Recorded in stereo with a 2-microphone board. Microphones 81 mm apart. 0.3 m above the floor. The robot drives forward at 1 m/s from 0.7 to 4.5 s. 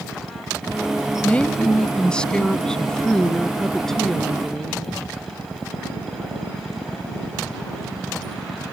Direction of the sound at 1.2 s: 20° left (ahead or behind).